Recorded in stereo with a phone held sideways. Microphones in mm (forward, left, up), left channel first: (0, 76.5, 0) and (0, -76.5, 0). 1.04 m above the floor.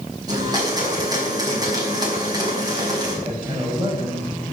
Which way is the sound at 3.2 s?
35° right (ahead or behind).